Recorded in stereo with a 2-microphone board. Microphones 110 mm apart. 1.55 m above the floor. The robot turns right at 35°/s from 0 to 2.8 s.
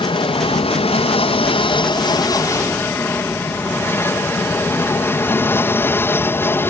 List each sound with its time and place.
0.0 s an aircraft: 60° left; by 6.7 s 155° left